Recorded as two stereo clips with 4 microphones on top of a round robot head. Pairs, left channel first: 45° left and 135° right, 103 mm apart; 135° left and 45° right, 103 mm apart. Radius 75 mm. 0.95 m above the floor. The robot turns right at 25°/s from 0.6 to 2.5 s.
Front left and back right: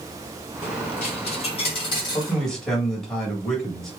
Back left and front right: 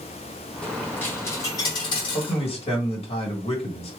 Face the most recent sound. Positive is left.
turn(degrees=130)